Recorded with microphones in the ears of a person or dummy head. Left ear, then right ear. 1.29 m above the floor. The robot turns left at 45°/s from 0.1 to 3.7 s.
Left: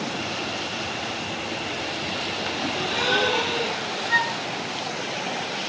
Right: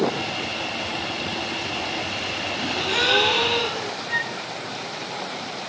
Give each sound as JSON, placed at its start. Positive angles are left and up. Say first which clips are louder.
{"t": 2.6, "sound": "a gasp", "louder": "right 4 dB", "azimuth_deg": -10, "distance_m": 5.0}
{"t": 4.1, "sound": "a flute", "louder": "left 5 dB", "side_deg": 15, "distance_m": 2.0}